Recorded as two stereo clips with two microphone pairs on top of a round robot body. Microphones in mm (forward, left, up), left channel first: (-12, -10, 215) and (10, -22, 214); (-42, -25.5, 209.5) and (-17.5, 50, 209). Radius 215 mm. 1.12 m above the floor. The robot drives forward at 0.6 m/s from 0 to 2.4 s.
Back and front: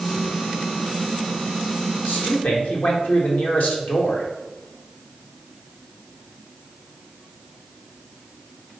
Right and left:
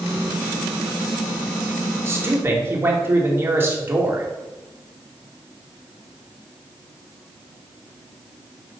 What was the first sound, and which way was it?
A man speaking, 130° left.